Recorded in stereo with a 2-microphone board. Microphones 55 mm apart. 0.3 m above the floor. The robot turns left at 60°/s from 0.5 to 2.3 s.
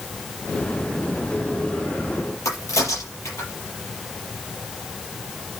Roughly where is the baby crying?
I don't hear a baby crying.